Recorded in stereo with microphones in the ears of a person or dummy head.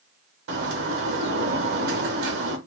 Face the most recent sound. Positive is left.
turn(degrees=-65)  # may be behind; listen again after turning